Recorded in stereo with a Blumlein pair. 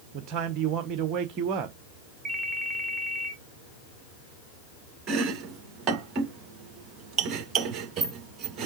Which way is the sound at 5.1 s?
30° right.